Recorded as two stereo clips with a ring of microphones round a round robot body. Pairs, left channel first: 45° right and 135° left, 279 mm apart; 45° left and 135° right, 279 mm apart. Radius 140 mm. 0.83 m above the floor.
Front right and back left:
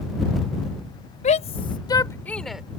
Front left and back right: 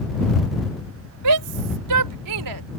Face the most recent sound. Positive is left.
turn(degrees=-140)